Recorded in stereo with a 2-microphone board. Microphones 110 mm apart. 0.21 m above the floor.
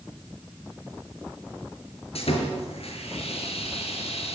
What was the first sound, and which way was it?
Sawing, 70° left (ahead or behind).